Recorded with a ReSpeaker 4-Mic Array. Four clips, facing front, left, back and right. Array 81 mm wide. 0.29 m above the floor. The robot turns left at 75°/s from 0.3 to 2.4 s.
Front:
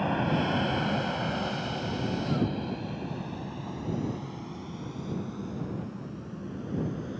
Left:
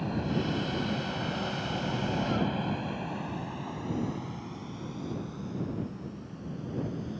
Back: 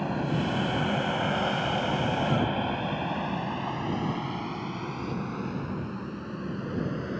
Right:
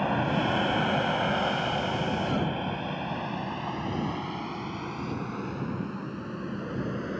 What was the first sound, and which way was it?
An aircraft, 75° right.